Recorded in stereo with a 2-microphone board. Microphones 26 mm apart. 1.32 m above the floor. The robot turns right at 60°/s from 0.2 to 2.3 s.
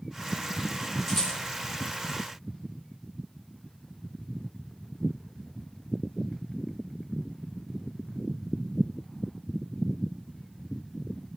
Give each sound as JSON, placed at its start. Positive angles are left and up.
{"t": 1.1, "sound": "a rattle", "side_deg": -15, "distance_m": 4.5}